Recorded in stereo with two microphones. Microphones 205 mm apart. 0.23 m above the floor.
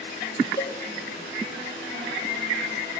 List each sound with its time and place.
0.6 s a cowbell: 15° left (ahead or behind), 0.5 m